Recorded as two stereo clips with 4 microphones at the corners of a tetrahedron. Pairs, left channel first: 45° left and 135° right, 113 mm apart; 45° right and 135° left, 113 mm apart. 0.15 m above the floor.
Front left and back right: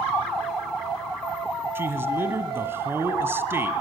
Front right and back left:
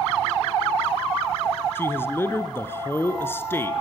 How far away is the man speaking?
About 1.7 m.